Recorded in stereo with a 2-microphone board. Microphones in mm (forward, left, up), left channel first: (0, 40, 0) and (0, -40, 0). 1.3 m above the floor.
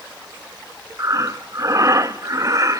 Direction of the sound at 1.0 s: 40° right (ahead or behind).